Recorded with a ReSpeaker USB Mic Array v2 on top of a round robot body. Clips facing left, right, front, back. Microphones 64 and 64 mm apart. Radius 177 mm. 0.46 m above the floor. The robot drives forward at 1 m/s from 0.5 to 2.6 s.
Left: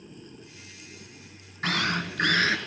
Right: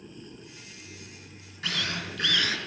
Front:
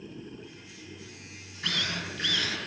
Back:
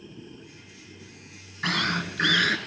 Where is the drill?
145° left, 2.5 m; by 2.6 s 155° left, 3.5 m.